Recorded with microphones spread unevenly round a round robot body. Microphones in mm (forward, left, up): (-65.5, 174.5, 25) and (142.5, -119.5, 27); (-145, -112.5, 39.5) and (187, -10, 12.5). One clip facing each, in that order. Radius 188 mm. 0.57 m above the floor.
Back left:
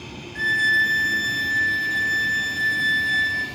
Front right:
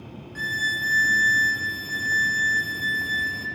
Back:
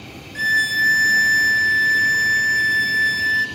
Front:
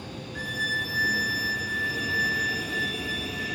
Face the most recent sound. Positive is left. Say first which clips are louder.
# back left 4 dB, back 2 dB
turn(degrees=-125)